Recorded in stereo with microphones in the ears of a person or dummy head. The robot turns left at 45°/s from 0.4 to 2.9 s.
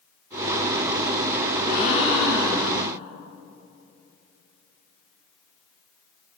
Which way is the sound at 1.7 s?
50° left.